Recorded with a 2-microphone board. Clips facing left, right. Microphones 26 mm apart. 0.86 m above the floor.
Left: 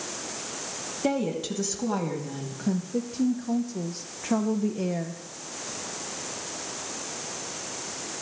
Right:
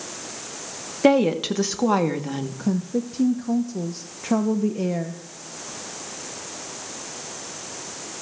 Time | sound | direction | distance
1.0 | a woman speaking | 45° right (ahead or behind) | 1.1 m
2.6 | a woman speaking | 20° right (ahead or behind) | 0.8 m